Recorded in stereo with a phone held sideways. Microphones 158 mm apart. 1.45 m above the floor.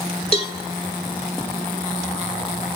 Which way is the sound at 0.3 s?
40° left (ahead or behind).